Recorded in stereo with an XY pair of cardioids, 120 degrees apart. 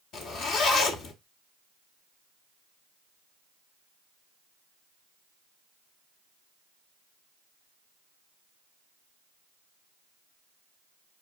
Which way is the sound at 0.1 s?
65° left.